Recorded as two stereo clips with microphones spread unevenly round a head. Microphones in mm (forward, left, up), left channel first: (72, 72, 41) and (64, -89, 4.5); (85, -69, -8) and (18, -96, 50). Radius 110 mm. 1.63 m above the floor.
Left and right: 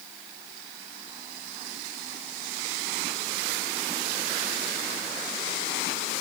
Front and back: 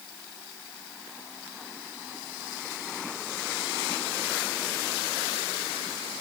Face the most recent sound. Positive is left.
No sound to turn to.